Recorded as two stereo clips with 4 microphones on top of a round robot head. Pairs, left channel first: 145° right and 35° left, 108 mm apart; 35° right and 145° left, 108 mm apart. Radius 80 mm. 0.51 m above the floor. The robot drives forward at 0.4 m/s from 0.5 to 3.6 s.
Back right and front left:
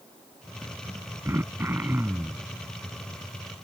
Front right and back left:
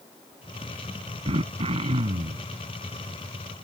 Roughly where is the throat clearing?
Left.